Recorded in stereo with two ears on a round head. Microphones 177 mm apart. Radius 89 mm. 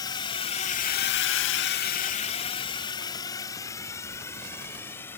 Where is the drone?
20° left (ahead or behind); by 5.2 s 10° left (ahead or behind).